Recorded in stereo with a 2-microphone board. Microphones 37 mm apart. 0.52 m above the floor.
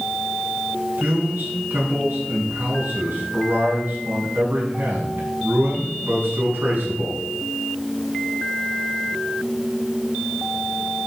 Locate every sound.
1.0 s a man speaking: 65° right (ahead or behind), 6 m